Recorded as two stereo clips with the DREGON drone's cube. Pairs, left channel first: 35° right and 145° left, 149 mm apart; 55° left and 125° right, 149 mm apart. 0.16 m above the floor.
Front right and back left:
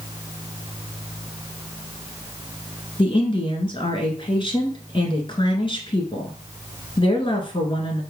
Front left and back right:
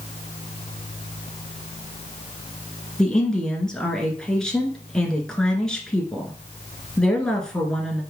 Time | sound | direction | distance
3.0 | a woman speaking | 25° right | 1.6 m